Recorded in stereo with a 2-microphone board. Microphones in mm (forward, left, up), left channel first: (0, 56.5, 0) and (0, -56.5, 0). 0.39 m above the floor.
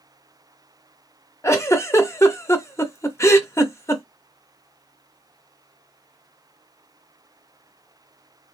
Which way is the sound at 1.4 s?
25° left (ahead or behind).